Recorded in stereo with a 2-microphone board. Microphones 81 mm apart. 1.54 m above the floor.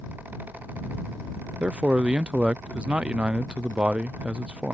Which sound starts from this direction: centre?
A man speaking, at 1.6 s.